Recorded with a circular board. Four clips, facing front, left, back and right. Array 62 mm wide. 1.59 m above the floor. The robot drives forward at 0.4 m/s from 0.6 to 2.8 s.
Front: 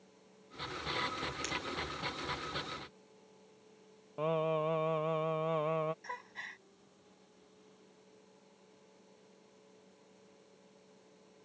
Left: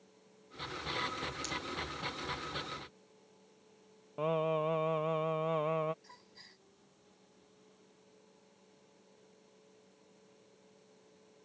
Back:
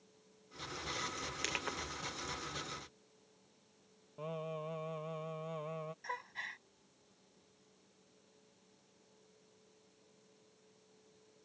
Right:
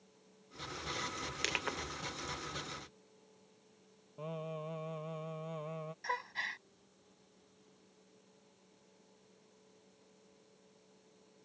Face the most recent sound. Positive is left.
turn(degrees=-95)